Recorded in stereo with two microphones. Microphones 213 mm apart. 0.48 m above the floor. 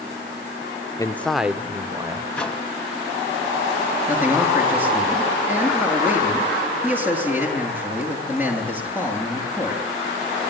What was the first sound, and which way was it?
A man speaking, 15° left (ahead or behind).